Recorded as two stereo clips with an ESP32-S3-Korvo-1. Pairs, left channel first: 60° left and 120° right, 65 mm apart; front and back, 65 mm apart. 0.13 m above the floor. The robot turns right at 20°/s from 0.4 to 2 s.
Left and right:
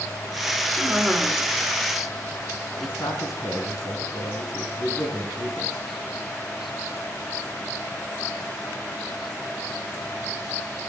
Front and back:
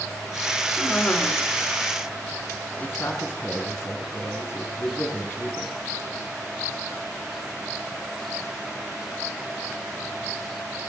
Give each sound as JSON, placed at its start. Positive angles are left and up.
{"t": 0.8, "sound": "a cough", "azimuth_deg": -55, "distance_m": 1.4}
{"t": 2.8, "sound": "a man speaking", "azimuth_deg": 50, "distance_m": 4.0}